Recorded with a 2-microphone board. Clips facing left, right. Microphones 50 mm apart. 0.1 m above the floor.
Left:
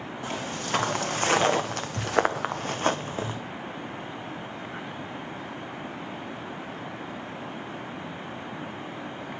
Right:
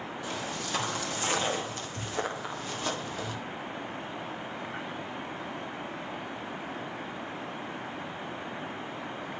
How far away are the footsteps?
About 1.4 m.